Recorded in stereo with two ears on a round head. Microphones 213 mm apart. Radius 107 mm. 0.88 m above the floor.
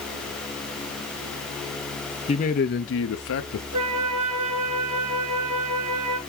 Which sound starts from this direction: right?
A flute, at 3.7 s.